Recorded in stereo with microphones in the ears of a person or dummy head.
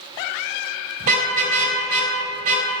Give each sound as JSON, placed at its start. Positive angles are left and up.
{"t": 1.0, "sound": "a car horn", "side_deg": -50, "distance_m": 3.5}